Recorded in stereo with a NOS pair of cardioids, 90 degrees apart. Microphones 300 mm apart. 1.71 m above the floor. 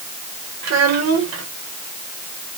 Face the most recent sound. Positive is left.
turn(degrees=-60)